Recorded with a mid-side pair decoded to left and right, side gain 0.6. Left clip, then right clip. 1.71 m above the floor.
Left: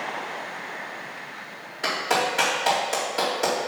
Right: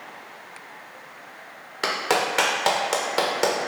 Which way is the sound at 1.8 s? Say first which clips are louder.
Right 1 dB; 50° right.